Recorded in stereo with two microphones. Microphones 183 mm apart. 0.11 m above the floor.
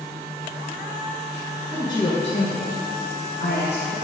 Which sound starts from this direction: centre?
A woman speaking, at 1.7 s.